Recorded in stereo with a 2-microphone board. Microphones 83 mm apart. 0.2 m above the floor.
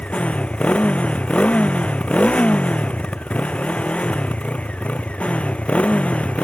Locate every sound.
0.0 s a motorcycle: 15° left (ahead or behind)